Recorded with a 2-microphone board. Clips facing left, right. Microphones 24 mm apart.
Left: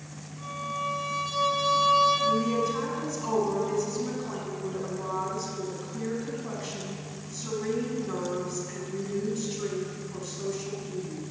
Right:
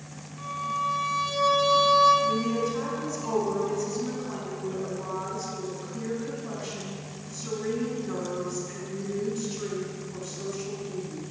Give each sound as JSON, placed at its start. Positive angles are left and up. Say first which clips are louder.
{"t": 0.4, "sound": "a violin", "louder": "right 3 dB", "side_deg": -35, "distance_m": 5.0}
{"t": 2.2, "sound": "a woman speaking", "louder": "left 1 dB", "side_deg": 10, "distance_m": 4.5}